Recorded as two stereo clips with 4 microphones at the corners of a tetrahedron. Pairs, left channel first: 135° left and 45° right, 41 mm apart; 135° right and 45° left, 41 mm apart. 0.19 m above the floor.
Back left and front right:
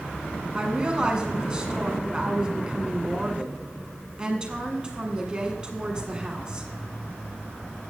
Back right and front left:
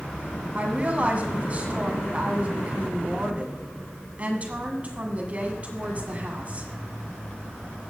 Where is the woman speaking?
15° left, 2 m.